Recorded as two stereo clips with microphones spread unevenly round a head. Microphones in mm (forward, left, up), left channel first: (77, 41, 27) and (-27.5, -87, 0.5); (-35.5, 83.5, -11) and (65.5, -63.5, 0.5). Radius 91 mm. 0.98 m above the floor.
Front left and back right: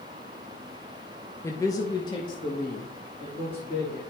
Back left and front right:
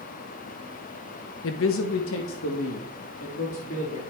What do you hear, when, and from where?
1.4 s a man speaking: 130° left, 0.5 m; by 4.0 s 115° left, 2.0 m